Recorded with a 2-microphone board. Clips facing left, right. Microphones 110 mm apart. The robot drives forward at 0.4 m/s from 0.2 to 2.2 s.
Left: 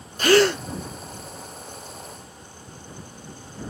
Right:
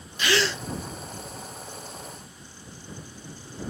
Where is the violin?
I don't hear a violin.